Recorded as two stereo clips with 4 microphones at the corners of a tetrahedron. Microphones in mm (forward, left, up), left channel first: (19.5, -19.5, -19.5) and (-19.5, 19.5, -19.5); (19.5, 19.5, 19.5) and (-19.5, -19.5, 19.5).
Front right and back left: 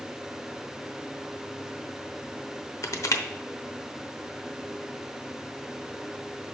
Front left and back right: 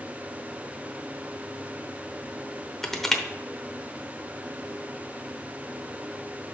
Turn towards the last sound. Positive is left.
turn(degrees=-40)